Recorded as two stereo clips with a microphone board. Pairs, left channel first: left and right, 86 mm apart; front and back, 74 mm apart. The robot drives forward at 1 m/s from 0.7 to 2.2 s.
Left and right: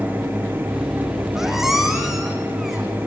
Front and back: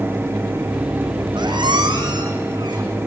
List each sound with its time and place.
1.4 s a squeak: 175° right, 2 m; by 2.9 s straight behind, 3 m